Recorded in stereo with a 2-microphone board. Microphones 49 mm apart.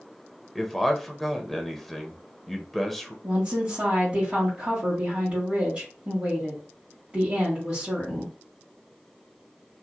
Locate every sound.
0.6 s a man speaking: 5° left (ahead or behind), 0.5 m
3.2 s a woman speaking: 25° right (ahead or behind), 1.5 m